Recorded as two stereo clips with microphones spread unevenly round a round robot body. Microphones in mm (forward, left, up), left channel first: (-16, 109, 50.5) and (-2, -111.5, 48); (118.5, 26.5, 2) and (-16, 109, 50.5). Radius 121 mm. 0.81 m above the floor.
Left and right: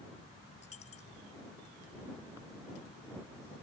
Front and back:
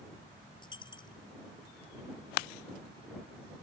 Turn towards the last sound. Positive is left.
turn(degrees=30)